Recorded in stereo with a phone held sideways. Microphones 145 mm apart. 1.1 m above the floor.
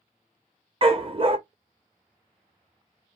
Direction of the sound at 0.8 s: 40° right (ahead or behind).